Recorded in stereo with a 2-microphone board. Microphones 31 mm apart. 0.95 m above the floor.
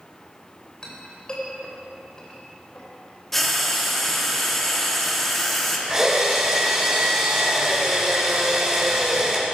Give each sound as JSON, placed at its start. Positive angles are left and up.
{"t": 0.8, "sound": "a clink", "side_deg": 25, "distance_m": 3.0}
{"t": 3.3, "sound": "frying", "side_deg": 5, "distance_m": 2.0}
{"t": 5.9, "sound": "a drill", "side_deg": -10, "distance_m": 4.5}